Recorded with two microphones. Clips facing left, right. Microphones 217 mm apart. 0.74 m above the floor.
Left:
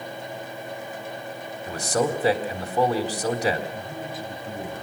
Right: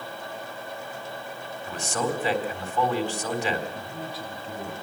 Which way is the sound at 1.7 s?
40° left (ahead or behind).